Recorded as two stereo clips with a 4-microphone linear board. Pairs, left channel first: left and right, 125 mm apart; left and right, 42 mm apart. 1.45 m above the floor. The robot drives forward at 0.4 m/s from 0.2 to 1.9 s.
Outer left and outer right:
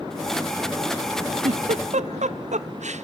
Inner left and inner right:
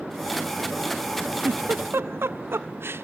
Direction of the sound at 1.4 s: 65° right (ahead or behind).